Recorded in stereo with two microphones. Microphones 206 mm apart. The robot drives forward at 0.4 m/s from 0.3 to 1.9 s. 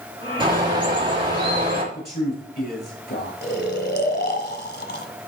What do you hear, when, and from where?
0.4 s a bird: 25° right (ahead or behind), 5 m
1.9 s a man speaking: 50° left (ahead or behind), 6.5 m
3.4 s snoring: 55° left (ahead or behind), 1.2 m